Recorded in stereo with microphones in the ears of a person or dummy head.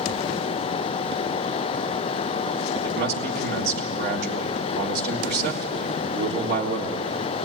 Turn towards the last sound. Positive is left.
turn(degrees=-70)  # may be behind; listen again after turning